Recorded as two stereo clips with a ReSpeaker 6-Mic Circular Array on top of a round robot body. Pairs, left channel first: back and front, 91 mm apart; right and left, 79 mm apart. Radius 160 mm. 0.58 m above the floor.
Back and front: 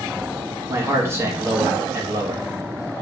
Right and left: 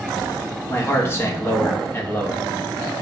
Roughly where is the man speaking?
Ahead right.